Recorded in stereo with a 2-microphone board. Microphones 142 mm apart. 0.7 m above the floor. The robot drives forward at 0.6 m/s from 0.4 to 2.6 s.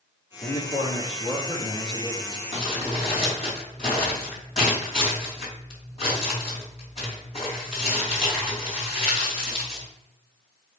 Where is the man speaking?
60° left (ahead or behind), 1.6 m; by 2.4 s 35° left (ahead or behind), 2 m.